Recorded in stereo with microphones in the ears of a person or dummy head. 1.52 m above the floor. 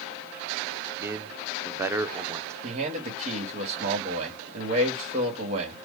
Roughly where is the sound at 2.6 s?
Right.